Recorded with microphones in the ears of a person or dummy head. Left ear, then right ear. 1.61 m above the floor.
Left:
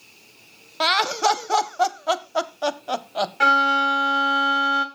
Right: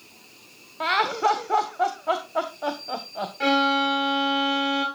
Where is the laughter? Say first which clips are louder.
Left 2 dB; 85° left, 1.2 m.